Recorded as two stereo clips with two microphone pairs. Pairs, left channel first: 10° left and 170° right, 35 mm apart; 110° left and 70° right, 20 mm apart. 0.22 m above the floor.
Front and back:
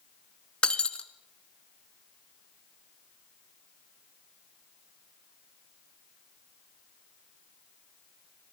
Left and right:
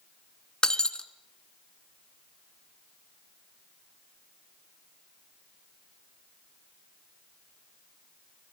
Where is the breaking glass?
65° left, 1.2 m.